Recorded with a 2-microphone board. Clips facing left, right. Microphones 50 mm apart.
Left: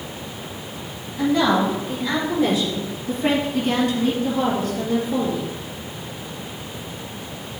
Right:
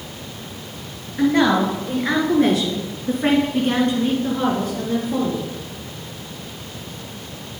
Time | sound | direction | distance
1.2 | a woman speaking | 50° right (ahead or behind) | 2 m